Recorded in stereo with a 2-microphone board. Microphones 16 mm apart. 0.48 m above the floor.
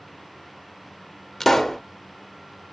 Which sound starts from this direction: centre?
A pop, at 1.4 s.